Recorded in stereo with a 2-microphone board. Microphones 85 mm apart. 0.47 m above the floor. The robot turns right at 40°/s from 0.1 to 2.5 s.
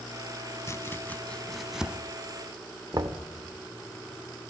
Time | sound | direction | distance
0.7 | chopping | 35° left (ahead or behind) | 0.7 m
2.9 | knocking | 50° right (ahead or behind) | 0.8 m